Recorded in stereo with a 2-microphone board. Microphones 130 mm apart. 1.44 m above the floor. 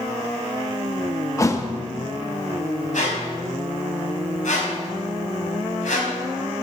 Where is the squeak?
70° left (ahead or behind), 4 m.